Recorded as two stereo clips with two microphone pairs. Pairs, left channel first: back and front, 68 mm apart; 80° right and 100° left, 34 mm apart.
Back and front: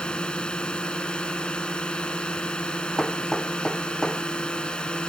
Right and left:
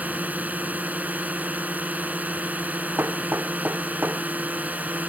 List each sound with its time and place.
0.0 s a drone: 105° left
3.0 s hammering: 100° left